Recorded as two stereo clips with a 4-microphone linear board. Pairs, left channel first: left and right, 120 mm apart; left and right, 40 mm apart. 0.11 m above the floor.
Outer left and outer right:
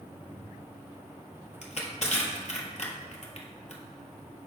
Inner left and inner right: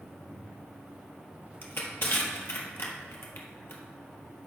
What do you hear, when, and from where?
1.6 s crushing: 60° left (ahead or behind), 1.5 m